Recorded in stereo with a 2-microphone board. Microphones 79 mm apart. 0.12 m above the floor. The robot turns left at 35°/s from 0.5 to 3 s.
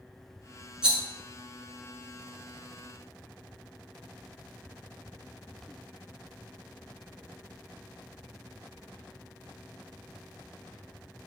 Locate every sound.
0.8 s a rattle: 10° right (ahead or behind), 0.8 m